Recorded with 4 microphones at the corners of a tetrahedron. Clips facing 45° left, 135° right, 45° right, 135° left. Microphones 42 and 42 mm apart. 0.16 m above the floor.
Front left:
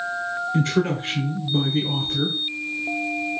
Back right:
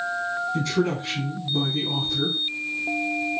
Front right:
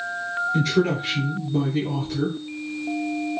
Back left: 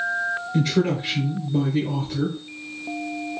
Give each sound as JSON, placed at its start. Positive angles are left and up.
{"t": 0.5, "sound": "a man speaking", "azimuth_deg": 50, "distance_m": 2.0}